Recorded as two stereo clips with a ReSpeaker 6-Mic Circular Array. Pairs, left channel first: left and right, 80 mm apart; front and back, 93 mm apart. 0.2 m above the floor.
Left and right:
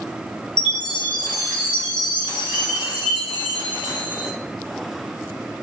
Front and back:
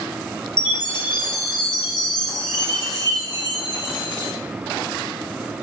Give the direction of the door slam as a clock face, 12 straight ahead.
I don't hear a door slam.